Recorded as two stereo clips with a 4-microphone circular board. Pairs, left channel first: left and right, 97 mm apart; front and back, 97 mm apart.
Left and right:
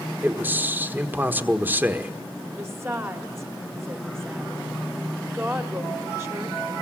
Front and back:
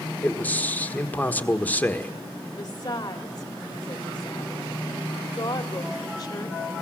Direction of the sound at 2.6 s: 35° right.